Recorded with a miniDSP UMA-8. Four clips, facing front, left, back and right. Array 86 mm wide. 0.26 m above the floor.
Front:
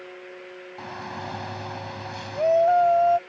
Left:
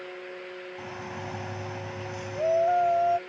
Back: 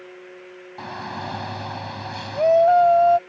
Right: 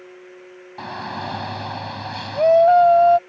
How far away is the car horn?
I don't hear a car horn.